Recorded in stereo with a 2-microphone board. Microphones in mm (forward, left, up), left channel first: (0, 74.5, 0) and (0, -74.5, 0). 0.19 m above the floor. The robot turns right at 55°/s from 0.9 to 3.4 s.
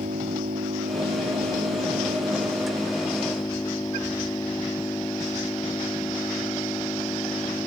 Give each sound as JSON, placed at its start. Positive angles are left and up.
{"t": 0.0, "sound": "an engine running", "azimuth_deg": -115}